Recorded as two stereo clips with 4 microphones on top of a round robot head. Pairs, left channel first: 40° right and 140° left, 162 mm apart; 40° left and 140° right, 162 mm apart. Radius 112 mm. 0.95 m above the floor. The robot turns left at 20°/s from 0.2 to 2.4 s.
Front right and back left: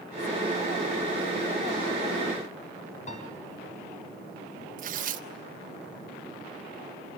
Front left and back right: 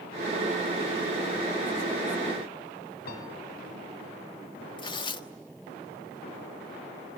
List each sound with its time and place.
3.1 s a piano: 10° left, 5 m
4.8 s tearing paper: 100° left, 1.4 m